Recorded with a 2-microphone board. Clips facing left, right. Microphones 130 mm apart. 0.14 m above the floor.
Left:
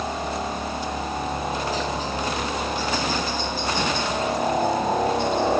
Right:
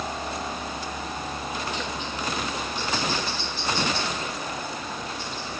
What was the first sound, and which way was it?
A helicopter, 20° left (ahead or behind).